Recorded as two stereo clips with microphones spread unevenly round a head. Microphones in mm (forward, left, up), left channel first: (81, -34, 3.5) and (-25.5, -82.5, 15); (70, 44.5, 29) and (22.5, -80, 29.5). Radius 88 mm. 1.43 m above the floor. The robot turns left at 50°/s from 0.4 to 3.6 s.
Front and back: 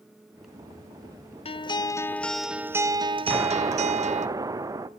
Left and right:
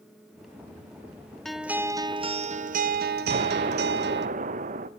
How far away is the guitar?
About 0.8 m.